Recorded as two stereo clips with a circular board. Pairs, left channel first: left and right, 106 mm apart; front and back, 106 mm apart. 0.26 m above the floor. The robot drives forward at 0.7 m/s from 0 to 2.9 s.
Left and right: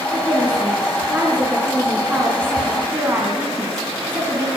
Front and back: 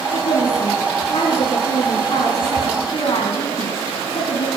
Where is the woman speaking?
15° right, 4.5 m; by 4.5 s 25° right, 2.5 m.